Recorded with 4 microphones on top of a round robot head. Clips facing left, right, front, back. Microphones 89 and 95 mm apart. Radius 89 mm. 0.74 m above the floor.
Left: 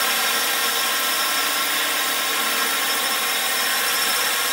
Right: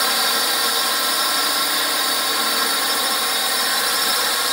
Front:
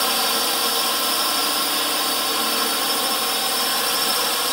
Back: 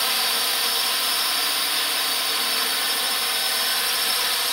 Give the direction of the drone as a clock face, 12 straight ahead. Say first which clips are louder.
Right 2 dB, front 5 dB; 1 o'clock.